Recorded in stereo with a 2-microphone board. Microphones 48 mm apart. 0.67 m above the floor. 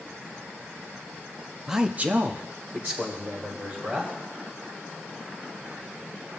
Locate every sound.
1.7 s a man speaking: 5° right (ahead or behind), 0.6 m; by 4.1 s 40° right (ahead or behind), 3 m